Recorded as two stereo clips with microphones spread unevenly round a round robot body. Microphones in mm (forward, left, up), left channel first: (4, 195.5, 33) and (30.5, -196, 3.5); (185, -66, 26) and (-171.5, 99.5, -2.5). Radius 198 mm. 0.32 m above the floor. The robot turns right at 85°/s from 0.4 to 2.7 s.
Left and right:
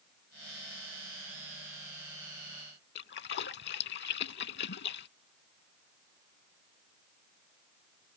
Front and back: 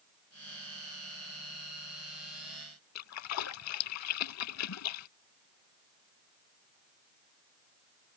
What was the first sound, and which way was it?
A splash, 30° left.